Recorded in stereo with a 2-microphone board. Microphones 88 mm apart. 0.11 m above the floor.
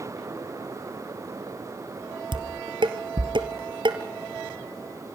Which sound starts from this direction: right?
Dishes clattering, at 2.3 s.